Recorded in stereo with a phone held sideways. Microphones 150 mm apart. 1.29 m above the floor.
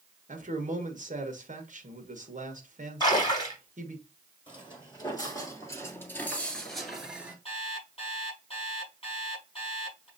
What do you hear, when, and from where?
0.3 s a man speaking: 60° right (ahead or behind), 1.2 m
3.0 s a splash: 30° left (ahead or behind), 2.5 m
4.5 s footsteps: 35° left (ahead or behind), 2 m; by 7.3 s 10° right (ahead or behind), 1.4 m
7.5 s an alarm clock: 35° left (ahead or behind), 4.5 m